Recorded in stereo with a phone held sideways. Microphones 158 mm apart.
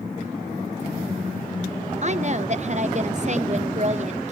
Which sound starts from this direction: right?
A woman speaking, at 2.0 s.